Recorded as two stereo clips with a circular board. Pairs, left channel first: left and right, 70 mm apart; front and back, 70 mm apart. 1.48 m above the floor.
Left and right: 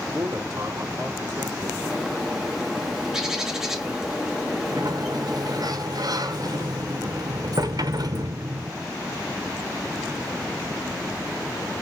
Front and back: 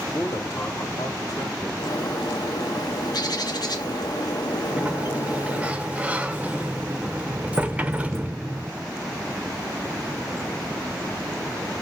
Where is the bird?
5° right, 1.4 m.